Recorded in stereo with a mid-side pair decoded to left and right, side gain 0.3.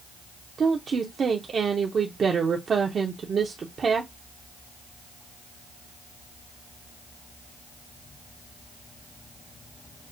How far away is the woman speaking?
About 0.6 m.